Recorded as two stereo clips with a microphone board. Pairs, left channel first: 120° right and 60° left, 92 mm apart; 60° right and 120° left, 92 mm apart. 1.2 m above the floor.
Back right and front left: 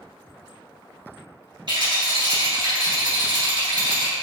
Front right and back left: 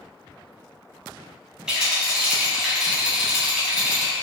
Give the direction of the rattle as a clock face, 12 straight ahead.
11 o'clock.